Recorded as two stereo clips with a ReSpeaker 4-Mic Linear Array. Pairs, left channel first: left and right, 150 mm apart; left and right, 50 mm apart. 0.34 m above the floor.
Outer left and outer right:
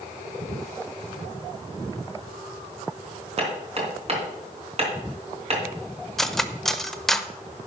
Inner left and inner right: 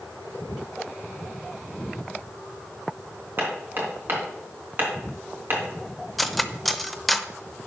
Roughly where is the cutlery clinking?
Centre.